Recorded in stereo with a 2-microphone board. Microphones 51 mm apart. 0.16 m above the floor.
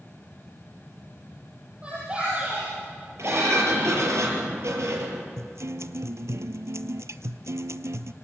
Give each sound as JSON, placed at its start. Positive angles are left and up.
{"t": 1.8, "sound": "a shout", "side_deg": -20, "distance_m": 5.5}
{"t": 3.2, "sound": "a sliding door", "side_deg": -70, "distance_m": 4.5}
{"t": 5.4, "sound": "a guitar", "side_deg": -75, "distance_m": 0.7}